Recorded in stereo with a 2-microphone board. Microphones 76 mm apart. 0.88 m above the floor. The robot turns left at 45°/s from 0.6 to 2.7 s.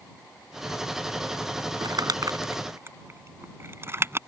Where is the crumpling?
75° right (ahead or behind); by 4.2 s 35° right (ahead or behind).